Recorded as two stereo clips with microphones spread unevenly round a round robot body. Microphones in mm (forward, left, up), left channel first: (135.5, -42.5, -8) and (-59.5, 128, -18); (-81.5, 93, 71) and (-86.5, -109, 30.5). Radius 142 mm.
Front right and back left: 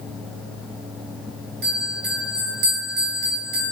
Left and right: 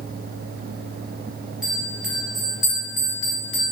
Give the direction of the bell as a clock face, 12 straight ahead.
6 o'clock.